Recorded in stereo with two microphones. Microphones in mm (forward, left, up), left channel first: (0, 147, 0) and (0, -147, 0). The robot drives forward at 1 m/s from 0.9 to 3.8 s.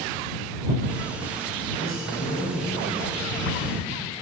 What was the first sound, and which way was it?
A man speaking, 45° left (ahead or behind).